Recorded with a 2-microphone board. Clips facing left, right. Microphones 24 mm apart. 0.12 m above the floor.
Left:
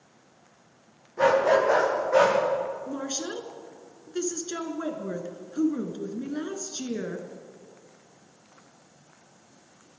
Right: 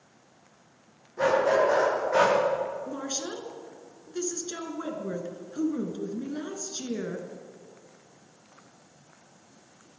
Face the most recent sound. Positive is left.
turn(degrees=30)  # may be behind; listen again after turning